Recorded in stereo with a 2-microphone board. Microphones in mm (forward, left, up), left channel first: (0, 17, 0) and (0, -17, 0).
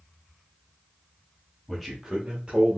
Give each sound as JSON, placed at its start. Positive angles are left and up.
{"t": 1.7, "sound": "a man speaking", "side_deg": 0, "distance_m": 0.9}